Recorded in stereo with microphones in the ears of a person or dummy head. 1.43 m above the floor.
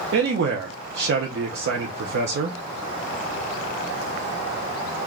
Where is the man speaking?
65° right (ahead or behind), 0.6 m.